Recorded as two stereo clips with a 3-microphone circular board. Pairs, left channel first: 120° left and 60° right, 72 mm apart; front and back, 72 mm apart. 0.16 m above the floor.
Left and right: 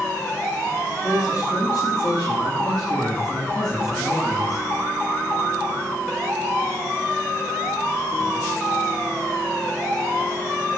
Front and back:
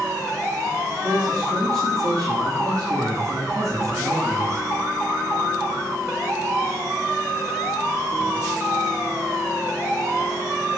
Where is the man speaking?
135° left, 6 m; by 4.7 s 145° left, 3 m.